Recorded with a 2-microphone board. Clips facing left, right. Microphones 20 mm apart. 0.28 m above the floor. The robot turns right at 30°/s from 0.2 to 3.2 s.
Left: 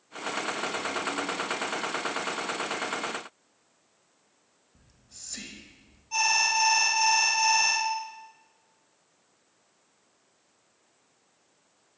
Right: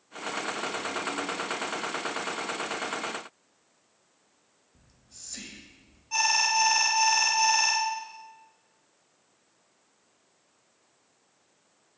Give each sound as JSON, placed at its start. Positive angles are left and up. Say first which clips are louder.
{"t": 4.8, "sound": "whispering", "louder": "left 1 dB", "side_deg": 15, "distance_m": 1.0}
{"t": 6.1, "sound": "an alarm", "louder": "even", "side_deg": -20, "distance_m": 1.5}